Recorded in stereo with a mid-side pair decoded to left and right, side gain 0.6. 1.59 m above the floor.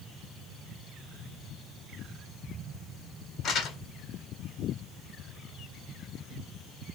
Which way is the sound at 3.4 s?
55° left.